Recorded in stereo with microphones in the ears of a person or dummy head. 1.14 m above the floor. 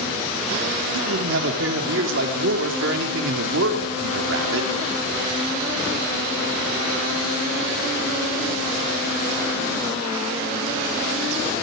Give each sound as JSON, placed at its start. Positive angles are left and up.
{"t": 0.9, "sound": "a man speaking", "side_deg": -70, "distance_m": 3.0}